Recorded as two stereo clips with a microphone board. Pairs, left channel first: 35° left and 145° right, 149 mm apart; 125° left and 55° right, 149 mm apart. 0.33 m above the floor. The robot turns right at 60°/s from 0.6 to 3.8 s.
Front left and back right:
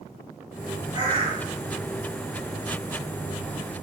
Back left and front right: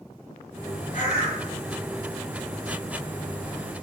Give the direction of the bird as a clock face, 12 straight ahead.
7 o'clock.